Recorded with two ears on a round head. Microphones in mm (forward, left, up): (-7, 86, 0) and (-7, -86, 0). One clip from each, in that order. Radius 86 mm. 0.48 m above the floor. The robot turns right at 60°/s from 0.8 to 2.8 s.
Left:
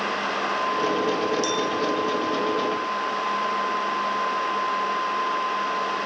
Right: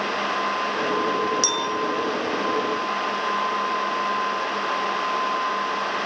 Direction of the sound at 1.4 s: 40° right (ahead or behind).